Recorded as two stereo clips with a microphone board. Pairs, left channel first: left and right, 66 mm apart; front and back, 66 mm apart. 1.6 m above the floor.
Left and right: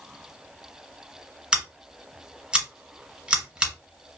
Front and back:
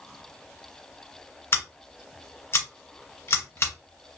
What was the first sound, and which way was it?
Scissors, 20° right.